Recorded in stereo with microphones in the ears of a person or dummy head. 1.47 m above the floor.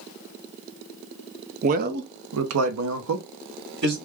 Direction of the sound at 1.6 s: 35° right (ahead or behind).